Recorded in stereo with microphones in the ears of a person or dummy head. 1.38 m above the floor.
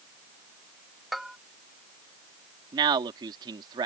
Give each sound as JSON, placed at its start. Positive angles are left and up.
{"t": 1.1, "sound": "a bell", "side_deg": -5}
{"t": 2.7, "sound": "a man speaking", "side_deg": -20}